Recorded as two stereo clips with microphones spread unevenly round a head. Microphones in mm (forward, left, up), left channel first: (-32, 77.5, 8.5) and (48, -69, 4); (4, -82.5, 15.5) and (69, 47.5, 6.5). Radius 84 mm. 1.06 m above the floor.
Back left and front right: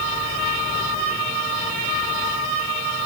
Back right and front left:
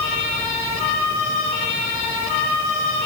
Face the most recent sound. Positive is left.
No sound to turn to.